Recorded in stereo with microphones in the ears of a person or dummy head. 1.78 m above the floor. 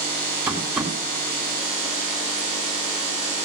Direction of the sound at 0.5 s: 10° right (ahead or behind).